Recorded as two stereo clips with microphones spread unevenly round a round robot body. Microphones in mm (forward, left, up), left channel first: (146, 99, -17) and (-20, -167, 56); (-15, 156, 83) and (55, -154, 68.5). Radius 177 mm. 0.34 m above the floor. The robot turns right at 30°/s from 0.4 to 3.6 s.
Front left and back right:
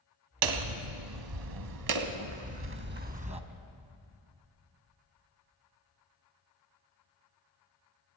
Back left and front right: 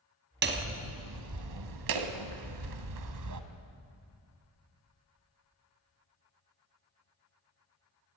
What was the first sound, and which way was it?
Hammering, 135° right.